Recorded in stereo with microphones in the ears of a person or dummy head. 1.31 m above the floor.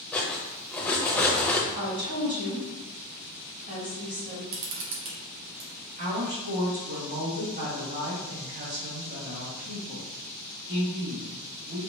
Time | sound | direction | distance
0.1 | cutlery clinking | 10° left (ahead or behind) | 0.6 m
1.8 | a woman speaking | 35° right (ahead or behind) | 1.5 m
4.5 | a camera shutter | 65° right (ahead or behind) | 1.7 m
6.0 | a woman speaking | 45° right (ahead or behind) | 1.8 m